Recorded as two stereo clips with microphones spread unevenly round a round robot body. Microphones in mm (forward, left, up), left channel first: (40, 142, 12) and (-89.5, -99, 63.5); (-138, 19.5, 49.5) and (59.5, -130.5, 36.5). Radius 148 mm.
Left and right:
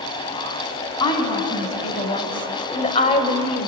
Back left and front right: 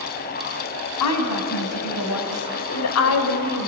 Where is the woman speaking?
135° left, 4.5 m; by 3.7 s 115° left, 2.5 m.